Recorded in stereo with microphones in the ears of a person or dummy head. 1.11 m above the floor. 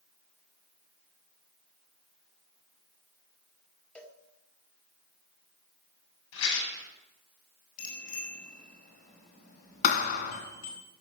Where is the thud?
40° left (ahead or behind), 1.8 m.